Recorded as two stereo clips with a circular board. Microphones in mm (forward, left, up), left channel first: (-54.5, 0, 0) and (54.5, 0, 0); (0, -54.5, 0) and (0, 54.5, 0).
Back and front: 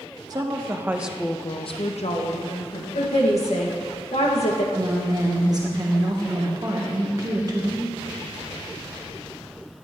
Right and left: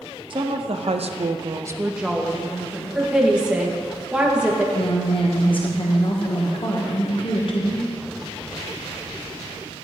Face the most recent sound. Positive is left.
turn(degrees=-55)